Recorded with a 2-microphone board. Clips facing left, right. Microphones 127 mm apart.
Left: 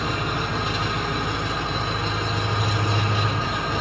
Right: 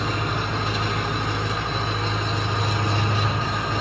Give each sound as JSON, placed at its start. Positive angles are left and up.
{"t": 0.0, "sound": "an engine running", "side_deg": 10, "distance_m": 8.0}